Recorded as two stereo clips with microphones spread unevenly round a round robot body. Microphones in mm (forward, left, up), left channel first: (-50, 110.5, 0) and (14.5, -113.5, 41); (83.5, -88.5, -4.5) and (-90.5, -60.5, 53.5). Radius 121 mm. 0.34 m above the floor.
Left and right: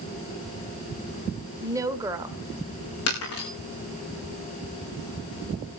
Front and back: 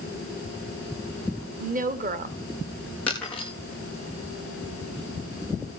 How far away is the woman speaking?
About 1.6 m.